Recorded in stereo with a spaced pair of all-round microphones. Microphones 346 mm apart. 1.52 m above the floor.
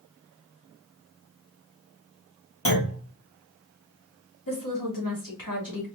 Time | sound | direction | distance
2.6 | a clunk | 40° left (ahead or behind) | 1.8 m
4.5 | a woman speaking | 65° left (ahead or behind) | 2.0 m